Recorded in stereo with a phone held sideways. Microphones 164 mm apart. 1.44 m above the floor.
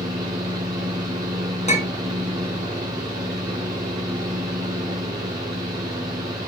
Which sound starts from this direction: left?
A clink, at 1.7 s.